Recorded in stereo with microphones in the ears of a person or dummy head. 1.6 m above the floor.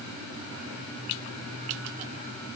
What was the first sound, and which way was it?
Only background noise.